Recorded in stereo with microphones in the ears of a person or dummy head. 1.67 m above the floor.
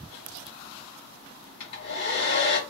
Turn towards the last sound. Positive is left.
turn(degrees=55)  # may be behind; listen again after turning